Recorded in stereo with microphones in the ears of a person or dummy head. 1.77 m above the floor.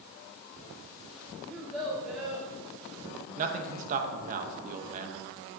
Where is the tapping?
I don't hear tapping.